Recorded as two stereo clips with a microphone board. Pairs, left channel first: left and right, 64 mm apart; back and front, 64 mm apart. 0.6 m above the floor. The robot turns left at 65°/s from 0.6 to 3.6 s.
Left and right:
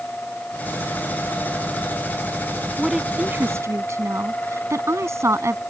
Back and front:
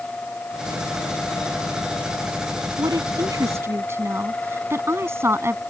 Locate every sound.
2.8 s a woman speaking: 5° left; by 5.6 s 50° right